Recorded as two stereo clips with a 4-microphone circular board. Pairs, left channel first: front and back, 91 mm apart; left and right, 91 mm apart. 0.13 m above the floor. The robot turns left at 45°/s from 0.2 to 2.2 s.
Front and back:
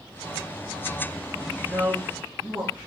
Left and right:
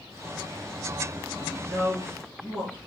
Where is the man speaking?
150° right, 1.5 m; by 2.8 s 175° right, 1.5 m.